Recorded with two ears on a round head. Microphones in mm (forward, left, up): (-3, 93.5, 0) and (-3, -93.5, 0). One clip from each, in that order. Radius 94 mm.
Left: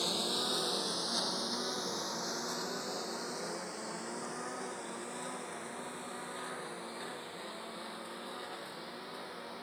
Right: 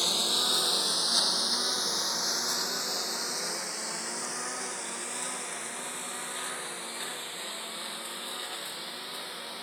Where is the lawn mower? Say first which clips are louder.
Right 7 dB; 40° right (ahead or behind); by 9.7 s 65° right (ahead or behind).